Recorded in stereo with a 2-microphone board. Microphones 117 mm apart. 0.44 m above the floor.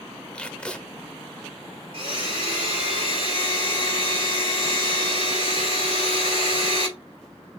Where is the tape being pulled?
10° left (ahead or behind), 0.7 m.